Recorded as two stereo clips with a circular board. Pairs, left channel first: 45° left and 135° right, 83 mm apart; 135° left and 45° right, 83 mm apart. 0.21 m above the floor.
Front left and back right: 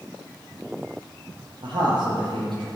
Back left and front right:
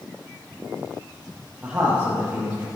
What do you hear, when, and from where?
1.6 s a man speaking: 125° right, 5 m; by 2.7 s 115° right, 5 m